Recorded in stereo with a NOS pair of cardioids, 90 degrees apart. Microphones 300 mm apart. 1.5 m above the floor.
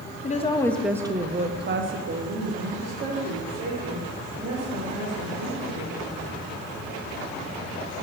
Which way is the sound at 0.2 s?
25° left.